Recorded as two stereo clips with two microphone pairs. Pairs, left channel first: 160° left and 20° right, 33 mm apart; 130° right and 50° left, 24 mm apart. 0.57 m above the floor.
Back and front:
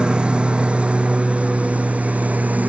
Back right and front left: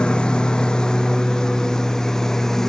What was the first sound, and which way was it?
A lawn mower, 80° right.